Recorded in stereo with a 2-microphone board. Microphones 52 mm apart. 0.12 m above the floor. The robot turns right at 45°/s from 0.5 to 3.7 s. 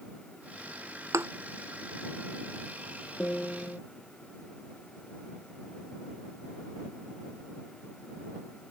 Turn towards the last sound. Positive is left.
turn(degrees=15)  # may be behind; listen again after turning